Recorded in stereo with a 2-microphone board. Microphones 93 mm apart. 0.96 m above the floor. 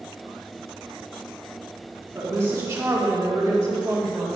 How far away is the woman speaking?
About 1.9 m.